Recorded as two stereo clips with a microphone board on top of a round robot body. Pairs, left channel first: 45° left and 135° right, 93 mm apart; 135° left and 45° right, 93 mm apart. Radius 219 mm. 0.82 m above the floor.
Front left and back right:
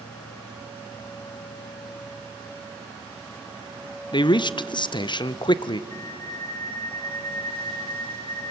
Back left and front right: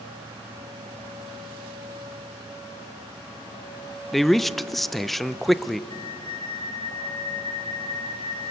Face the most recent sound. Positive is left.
turn(degrees=90)